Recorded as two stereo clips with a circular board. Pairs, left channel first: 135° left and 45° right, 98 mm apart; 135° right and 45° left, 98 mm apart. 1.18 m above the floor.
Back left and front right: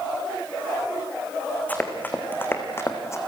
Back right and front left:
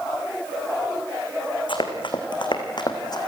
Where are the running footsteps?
155° right, 3.5 m; by 3.2 s 170° right, 3 m.